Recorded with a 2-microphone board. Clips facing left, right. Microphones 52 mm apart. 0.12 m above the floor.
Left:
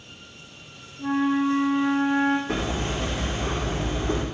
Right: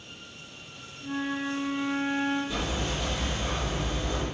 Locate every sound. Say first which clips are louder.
1.0 s a flute: left 9 dB; 85° left, 1.8 m
2.5 s hammering: left 4 dB; 70° left (ahead or behind), 4.5 m